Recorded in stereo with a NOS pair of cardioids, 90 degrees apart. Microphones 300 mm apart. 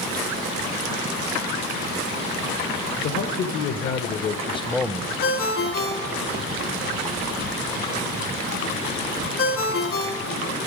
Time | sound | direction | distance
3.0 | a man speaking | 60° left | 1.0 m
5.2 | a ringtone | 50° left | 1.5 m